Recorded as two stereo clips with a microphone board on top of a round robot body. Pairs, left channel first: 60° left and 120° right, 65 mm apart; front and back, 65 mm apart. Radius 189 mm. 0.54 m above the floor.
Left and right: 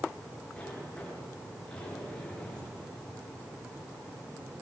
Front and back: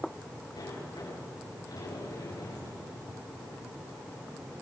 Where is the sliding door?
15° right, 8.5 m.